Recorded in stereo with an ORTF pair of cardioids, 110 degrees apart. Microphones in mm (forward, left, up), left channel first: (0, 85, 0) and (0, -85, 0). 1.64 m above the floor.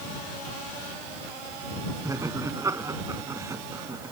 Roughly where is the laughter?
Ahead.